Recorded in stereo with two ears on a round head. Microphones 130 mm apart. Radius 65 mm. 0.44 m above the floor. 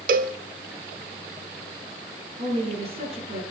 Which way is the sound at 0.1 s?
60° right (ahead or behind).